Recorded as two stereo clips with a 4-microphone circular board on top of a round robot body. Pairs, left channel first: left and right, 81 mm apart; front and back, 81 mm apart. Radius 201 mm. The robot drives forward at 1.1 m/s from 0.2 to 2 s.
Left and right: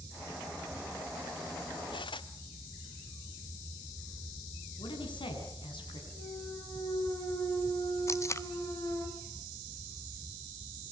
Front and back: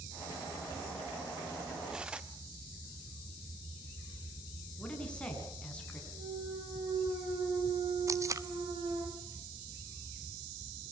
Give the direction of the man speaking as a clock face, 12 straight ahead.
9 o'clock.